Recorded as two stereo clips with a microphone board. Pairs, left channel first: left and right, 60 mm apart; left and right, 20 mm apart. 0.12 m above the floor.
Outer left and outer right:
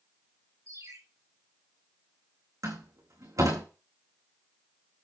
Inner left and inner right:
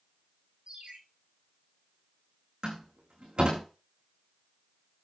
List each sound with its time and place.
0.7 s a ringtone: 55° right (ahead or behind), 6 m
2.6 s a door slam: 65° right (ahead or behind), 7 m